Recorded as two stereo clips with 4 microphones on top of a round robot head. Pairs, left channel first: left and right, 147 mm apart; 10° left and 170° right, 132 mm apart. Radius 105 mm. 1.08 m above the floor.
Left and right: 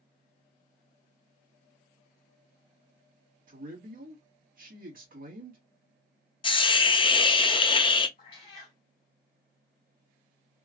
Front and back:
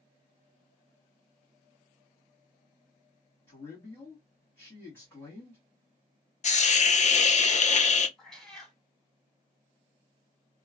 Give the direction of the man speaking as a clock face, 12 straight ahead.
2 o'clock.